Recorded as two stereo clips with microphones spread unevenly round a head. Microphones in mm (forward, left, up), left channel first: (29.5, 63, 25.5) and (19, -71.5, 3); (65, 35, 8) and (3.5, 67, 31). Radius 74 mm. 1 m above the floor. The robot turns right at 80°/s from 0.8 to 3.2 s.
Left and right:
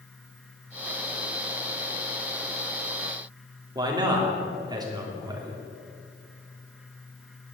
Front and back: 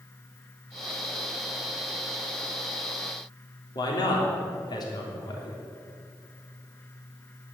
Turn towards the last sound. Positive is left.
turn(degrees=-35)